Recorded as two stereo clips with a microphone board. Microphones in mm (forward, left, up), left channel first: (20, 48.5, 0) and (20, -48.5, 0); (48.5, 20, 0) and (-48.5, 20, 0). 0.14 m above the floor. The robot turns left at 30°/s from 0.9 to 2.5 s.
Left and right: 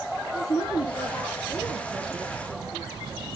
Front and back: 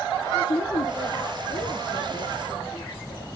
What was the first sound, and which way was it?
A woman speaking, 40° left.